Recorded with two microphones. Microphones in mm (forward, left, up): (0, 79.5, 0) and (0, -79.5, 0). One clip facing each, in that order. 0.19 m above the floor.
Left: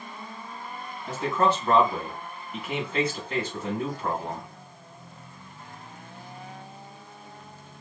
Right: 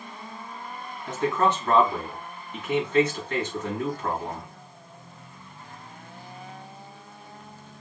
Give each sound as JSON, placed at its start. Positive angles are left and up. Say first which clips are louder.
{"t": 1.1, "sound": "a man speaking", "louder": "right 1 dB", "side_deg": 10, "distance_m": 1.8}